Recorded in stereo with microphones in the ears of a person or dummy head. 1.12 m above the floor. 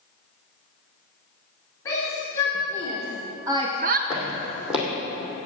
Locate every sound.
1.9 s a shout: 15° left (ahead or behind), 2.5 m; by 4.0 s 40° right (ahead or behind), 0.7 m
4.1 s footsteps: 5° right (ahead or behind), 2.5 m